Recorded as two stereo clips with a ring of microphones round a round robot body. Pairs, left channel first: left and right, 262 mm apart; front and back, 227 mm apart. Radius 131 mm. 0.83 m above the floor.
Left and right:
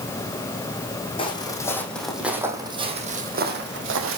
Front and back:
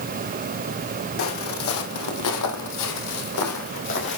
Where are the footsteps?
20° left, 3 m; by 4.2 s 50° right, 3 m.